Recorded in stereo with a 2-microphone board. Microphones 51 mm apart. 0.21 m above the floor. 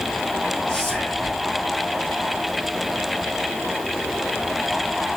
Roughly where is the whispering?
Centre.